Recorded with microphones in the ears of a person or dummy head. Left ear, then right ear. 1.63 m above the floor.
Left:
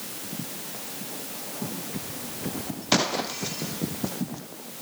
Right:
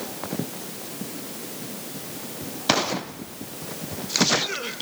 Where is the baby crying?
No baby crying in this recording.